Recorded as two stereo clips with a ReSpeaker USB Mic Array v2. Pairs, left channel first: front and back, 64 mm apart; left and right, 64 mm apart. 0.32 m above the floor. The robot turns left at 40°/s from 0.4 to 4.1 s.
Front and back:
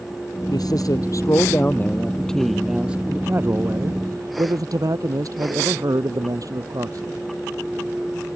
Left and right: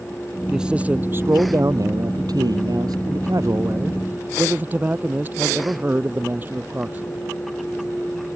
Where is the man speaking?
10° right; by 7.2 s 155° right.